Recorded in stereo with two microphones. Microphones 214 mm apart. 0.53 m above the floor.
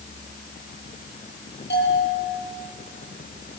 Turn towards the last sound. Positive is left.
turn(degrees=55)  # may be behind; listen again after turning